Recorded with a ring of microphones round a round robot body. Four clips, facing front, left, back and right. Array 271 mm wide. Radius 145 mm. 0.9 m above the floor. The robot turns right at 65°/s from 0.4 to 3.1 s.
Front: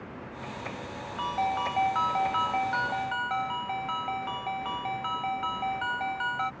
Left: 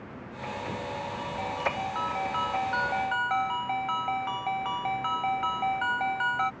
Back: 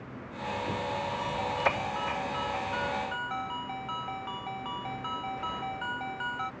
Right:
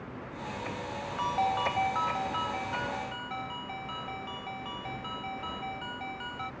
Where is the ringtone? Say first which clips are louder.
Right 5 dB, front 4 dB; 60° right; by 6.5 s 65° left.